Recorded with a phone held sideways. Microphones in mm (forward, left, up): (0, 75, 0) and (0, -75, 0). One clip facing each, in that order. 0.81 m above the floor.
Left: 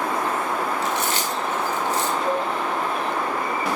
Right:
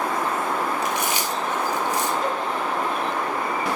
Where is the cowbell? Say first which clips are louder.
Left 2 dB; 65° left (ahead or behind), 3 m.